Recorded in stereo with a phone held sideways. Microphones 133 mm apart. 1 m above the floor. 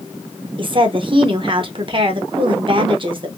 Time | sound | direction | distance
0.6 | a woman speaking | 40° right (ahead or behind) | 0.8 m